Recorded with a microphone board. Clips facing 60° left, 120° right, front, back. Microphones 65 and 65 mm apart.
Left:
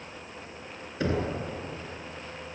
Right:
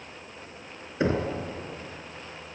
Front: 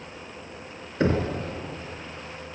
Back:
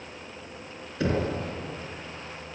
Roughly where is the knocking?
Ahead right.